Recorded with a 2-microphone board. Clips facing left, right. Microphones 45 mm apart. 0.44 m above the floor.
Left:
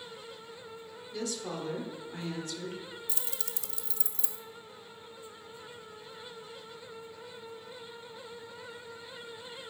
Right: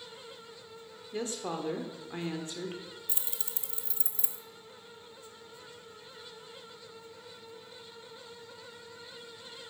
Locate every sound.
1.1 s a woman speaking: 30° right (ahead or behind), 1.1 m
3.1 s keys jangling: 25° right (ahead or behind), 0.6 m